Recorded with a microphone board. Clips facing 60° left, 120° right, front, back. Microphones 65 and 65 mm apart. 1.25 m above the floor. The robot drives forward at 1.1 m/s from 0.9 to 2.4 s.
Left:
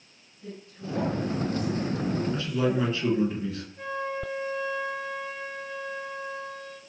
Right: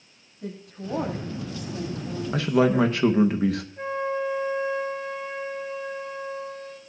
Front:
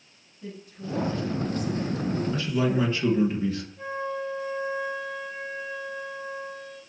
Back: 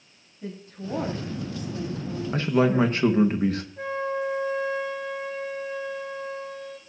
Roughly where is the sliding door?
I don't hear a sliding door.